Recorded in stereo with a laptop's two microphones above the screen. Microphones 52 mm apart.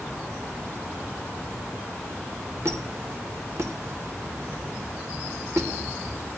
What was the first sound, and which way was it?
A squeak, 60° right (ahead or behind).